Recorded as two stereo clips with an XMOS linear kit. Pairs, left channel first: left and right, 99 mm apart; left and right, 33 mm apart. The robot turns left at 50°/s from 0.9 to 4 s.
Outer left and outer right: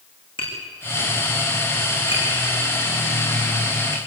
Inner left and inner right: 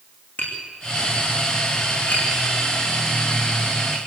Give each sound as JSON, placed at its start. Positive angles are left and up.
{"t": 0.4, "sound": "tapping", "side_deg": 60, "distance_m": 8.5}